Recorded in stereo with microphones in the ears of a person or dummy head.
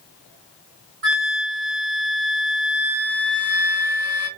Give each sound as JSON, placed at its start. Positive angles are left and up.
{"t": 1.0, "sound": "a flute", "side_deg": -60, "distance_m": 2.5}